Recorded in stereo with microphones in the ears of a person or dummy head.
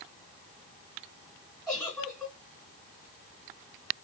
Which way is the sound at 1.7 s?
Centre (ahead or behind).